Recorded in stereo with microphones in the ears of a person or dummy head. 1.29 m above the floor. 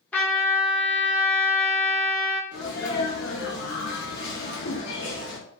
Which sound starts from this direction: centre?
A trumpet, at 0.1 s.